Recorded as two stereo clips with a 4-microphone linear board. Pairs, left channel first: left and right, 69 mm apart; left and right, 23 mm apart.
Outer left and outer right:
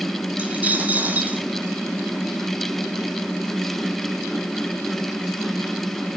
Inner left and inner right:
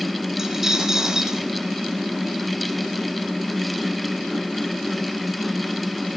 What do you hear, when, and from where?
0.4 s a dropped coin: 25° right (ahead or behind), 2.5 m